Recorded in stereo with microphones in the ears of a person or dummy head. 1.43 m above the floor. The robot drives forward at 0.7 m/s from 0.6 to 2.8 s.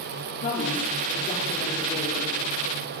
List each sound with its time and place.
0.4 s a woman speaking: 40° left (ahead or behind), 4 m; by 2.4 s 30° left (ahead or behind), 5 m